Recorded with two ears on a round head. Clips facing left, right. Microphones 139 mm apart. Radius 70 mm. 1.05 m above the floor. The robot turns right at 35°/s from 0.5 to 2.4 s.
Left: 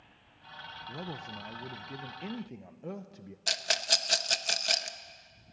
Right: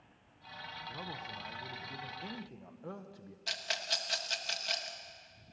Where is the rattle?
60° left (ahead or behind), 0.9 m.